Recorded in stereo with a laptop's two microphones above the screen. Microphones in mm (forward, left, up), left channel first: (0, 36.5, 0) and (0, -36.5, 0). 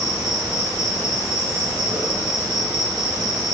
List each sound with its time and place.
0.0 s an insect: 60° right (ahead or behind), 0.7 m